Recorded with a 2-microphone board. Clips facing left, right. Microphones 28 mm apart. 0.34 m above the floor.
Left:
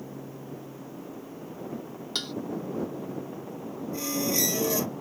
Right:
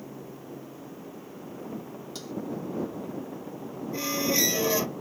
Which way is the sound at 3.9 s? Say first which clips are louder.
Right 2 dB; 20° right (ahead or behind).